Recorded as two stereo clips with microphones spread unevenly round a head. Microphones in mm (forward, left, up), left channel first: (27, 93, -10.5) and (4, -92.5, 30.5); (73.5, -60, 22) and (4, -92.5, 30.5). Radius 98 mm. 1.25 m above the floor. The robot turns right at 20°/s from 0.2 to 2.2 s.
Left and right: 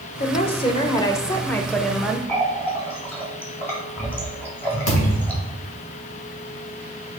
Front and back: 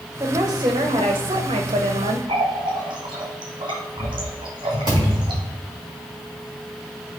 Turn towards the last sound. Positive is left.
turn(degrees=85)